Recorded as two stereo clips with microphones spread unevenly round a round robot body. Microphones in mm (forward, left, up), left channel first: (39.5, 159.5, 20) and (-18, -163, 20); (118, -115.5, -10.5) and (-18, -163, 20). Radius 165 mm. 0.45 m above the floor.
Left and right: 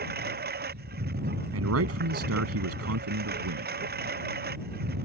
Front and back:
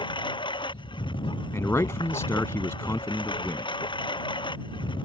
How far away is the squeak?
No squeak in this recording.